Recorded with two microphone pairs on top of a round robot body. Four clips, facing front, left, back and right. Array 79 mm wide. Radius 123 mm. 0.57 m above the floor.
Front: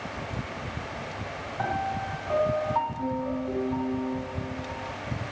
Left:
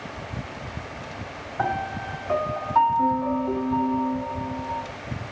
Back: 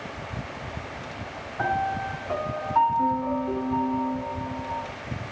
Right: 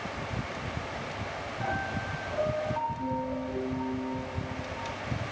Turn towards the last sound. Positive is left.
turn(degrees=95)